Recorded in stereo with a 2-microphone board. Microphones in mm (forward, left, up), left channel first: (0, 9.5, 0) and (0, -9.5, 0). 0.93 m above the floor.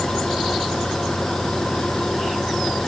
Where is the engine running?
30° left (ahead or behind).